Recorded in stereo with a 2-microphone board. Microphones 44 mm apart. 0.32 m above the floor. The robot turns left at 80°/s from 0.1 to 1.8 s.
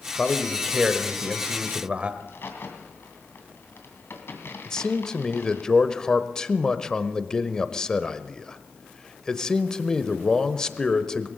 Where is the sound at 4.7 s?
15° left (ahead or behind), 0.9 m.